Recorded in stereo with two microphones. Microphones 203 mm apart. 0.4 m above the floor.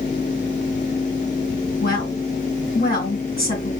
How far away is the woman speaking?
About 3 m.